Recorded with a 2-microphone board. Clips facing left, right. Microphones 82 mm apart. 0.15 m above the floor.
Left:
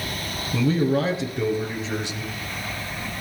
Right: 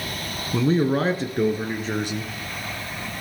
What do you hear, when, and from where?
0.5 s a man speaking: 30° right (ahead or behind), 1.5 m; by 3.1 s 55° right (ahead or behind), 4.5 m